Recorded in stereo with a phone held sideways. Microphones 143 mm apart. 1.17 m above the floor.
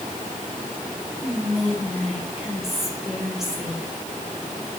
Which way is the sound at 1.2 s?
Centre (ahead or behind).